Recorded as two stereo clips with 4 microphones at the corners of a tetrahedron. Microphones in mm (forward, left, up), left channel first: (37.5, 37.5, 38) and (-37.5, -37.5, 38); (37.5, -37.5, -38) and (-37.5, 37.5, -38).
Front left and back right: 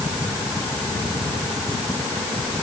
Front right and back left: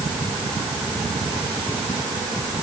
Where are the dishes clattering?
No dishes clattering in this recording.